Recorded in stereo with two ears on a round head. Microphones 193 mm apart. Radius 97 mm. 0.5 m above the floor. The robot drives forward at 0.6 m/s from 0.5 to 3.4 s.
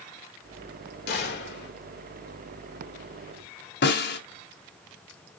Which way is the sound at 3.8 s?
50° left (ahead or behind).